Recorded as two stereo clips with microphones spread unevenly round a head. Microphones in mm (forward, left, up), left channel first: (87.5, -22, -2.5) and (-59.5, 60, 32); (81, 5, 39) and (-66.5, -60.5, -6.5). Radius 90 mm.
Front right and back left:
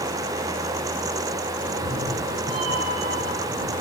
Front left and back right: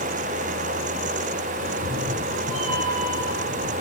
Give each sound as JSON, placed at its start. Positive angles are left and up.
{"t": 1.6, "sound": "a cat meowing", "azimuth_deg": 170, "distance_m": 4.0}